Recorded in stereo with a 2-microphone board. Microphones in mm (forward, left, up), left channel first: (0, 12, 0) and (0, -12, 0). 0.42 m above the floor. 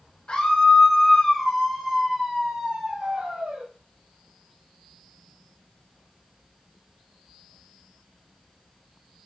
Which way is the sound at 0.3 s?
45° left (ahead or behind).